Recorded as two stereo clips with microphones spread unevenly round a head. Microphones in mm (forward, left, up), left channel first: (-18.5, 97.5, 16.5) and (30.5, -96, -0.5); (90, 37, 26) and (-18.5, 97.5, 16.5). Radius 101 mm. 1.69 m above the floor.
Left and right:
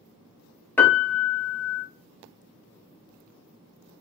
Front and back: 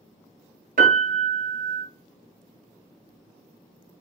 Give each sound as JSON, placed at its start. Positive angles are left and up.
{"t": 0.8, "sound": "a piano", "azimuth_deg": 180, "distance_m": 0.8}